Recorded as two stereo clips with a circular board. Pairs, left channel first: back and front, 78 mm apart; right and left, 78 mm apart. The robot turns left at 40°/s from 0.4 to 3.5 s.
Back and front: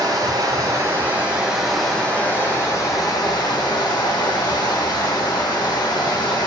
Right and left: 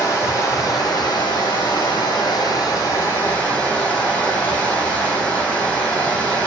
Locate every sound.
0.0 s running water: 35° right, 3 m; by 6.5 s 160° right, 3 m